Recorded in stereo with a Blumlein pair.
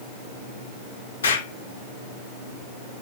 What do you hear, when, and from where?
1.2 s an explosion: 65° left, 1.6 m